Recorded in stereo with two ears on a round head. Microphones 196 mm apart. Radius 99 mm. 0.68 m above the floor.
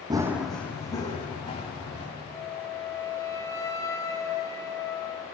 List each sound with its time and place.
0.1 s running footsteps: 20° right (ahead or behind), 1.2 m; by 2.0 s 30° left (ahead or behind), 3.5 m
2.3 s a flute: 15° left (ahead or behind), 0.9 m